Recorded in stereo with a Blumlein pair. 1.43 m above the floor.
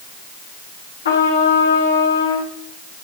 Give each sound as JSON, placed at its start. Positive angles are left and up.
{"t": 1.1, "sound": "a trumpet", "azimuth_deg": 65, "distance_m": 3.5}